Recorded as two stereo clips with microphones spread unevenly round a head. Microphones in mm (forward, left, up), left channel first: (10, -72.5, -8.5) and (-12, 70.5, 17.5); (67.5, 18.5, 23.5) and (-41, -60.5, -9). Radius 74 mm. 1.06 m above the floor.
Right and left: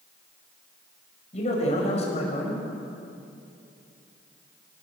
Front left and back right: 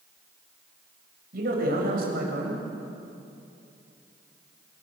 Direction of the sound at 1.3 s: 130° right.